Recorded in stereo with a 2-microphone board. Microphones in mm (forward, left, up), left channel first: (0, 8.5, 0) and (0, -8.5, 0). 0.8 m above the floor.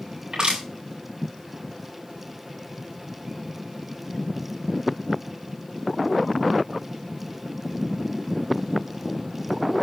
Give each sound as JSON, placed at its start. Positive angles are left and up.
{"t": 0.3, "sound": "crushing", "side_deg": -50, "distance_m": 7.0}